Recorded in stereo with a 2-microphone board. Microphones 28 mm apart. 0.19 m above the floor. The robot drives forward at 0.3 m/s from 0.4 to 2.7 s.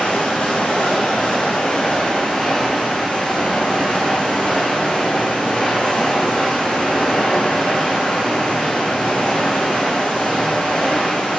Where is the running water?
60° left (ahead or behind), 1.1 m; by 11.4 s 40° left (ahead or behind), 1.5 m.